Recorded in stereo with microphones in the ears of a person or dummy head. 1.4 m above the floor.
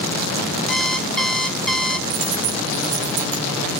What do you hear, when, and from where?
0.7 s an alarm clock: centre (ahead or behind), 1.2 m
2.1 s a dropped coin: 70° right (ahead or behind), 3.5 m